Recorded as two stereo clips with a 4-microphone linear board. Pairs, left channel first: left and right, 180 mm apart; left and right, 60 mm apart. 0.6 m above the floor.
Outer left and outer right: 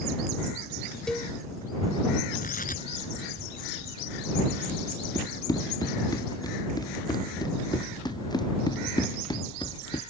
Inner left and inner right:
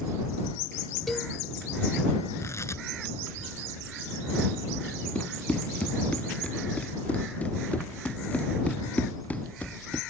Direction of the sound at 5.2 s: 20° left (ahead or behind).